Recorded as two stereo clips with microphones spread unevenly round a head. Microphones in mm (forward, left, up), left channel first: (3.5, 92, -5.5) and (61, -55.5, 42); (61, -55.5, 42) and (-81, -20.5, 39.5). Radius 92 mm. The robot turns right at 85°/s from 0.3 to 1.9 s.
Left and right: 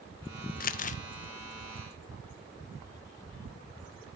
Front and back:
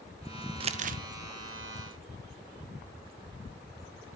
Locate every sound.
0.6 s crumpling: 115° left, 0.9 m; by 1.0 s 145° left, 0.9 m